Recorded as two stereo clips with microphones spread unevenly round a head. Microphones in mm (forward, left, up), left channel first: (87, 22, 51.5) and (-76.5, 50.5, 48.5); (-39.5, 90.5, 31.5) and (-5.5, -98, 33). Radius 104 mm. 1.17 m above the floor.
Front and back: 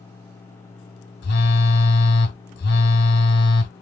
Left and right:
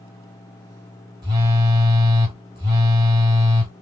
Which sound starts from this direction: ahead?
A phone buzzing, at 1.2 s.